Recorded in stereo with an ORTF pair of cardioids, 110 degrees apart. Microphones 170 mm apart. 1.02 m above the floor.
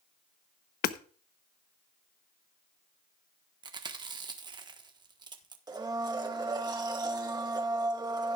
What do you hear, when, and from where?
0.8 s hammering: 65° left, 0.9 m
3.6 s chewing: 25° right, 1.3 m
5.7 s a blender: 25° right, 1.7 m